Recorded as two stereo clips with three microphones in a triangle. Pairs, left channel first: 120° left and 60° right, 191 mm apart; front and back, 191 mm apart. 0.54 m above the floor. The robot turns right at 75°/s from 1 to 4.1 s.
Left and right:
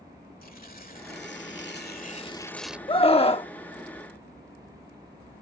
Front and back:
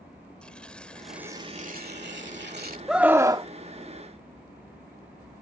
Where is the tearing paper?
85° left; by 2.8 s 140° right.